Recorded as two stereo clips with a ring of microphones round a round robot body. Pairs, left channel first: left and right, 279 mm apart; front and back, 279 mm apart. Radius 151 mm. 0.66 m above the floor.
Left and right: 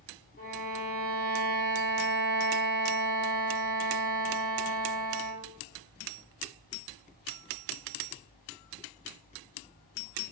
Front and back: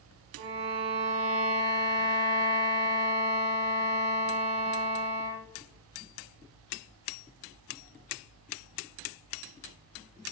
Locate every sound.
0.4 s a violin: 150° left, 0.8 m